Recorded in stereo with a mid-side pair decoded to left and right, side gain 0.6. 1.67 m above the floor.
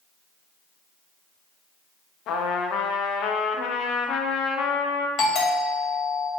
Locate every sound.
2.3 s a trumpet: 60° left, 0.6 m
5.2 s a doorbell: 60° left, 1.9 m